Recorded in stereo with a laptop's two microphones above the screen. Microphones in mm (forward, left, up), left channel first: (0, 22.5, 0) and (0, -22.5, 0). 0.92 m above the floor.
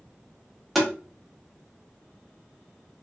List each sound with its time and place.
0.8 s tapping: centre (ahead or behind), 0.8 m